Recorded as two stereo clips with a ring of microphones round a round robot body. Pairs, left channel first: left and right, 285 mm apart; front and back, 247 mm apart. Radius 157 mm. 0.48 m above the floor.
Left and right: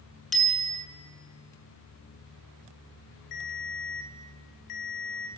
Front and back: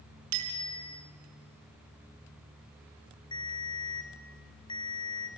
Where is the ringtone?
70° left, 3 m.